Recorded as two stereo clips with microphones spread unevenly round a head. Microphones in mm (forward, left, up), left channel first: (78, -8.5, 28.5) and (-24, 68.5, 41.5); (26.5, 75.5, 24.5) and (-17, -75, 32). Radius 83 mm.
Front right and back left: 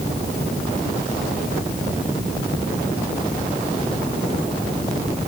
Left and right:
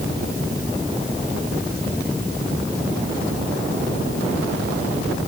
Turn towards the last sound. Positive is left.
No sound to turn to.